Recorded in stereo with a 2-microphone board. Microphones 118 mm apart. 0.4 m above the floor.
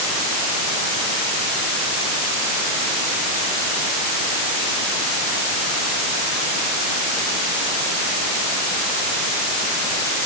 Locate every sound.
Only background noise.